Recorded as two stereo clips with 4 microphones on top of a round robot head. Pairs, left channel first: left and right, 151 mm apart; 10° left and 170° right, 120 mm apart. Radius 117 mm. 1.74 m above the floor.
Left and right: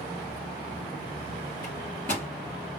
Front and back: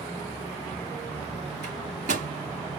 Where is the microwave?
175° left, 4 m.